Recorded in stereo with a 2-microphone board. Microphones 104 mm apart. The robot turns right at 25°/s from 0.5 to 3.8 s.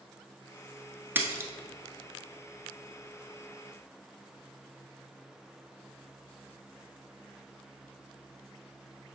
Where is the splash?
20° right (ahead or behind), 0.8 m; by 1.5 s 25° right (ahead or behind), 0.8 m.